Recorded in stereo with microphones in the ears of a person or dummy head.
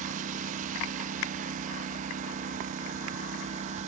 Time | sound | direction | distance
0.0 | a lawn mower | 40° right (ahead or behind) | ?